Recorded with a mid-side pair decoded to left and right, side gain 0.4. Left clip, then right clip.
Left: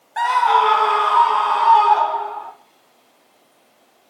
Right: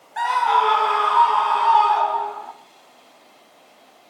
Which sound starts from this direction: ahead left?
A scream, at 0.2 s.